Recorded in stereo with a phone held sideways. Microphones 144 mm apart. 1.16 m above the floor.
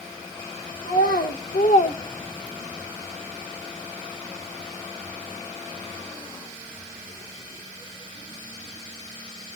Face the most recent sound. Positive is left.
turn(degrees=-30)  # may be behind; listen again after turning